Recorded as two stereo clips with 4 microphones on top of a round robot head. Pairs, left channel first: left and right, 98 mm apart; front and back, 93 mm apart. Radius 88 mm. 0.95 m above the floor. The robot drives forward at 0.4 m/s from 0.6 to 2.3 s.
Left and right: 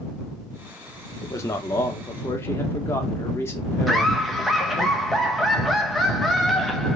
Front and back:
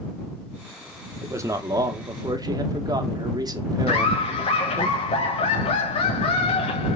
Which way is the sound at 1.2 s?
135° left.